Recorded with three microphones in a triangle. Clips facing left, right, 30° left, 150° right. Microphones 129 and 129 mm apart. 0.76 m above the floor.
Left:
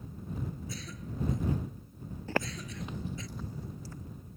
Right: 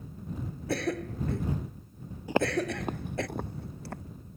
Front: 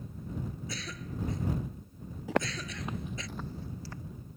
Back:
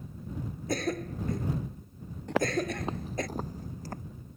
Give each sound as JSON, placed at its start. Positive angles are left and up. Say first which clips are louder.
{"t": 0.7, "sound": "a cough", "louder": "right 12 dB, back 10 dB", "azimuth_deg": -110}
{"t": 2.3, "sound": "footsteps", "louder": "right 8 dB, back 4 dB", "azimuth_deg": -45}